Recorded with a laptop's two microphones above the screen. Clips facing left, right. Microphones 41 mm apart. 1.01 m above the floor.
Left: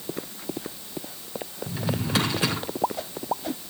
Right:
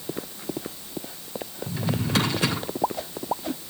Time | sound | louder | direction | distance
1.7 | a drawer | right 1 dB | 15° left (ahead or behind) | 5.5 m